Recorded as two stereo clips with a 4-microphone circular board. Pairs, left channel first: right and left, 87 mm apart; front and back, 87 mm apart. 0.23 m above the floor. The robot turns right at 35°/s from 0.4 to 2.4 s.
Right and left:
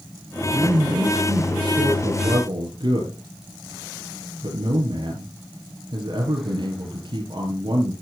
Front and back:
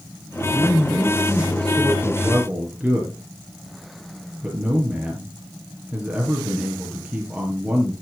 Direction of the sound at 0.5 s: 35° left.